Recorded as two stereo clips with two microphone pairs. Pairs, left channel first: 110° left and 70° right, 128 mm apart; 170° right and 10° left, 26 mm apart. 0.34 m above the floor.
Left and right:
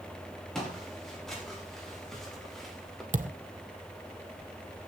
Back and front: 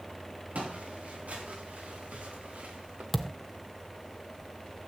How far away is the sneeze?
I don't hear a sneeze.